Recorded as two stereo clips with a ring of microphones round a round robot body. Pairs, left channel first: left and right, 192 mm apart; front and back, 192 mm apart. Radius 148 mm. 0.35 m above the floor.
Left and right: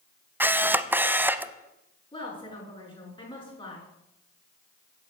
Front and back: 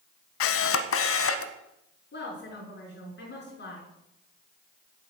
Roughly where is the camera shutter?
Ahead.